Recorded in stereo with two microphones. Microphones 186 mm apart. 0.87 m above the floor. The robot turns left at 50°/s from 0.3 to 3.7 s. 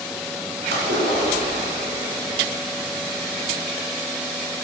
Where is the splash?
75° right, 2.5 m; by 2.4 s 160° right, 2.5 m.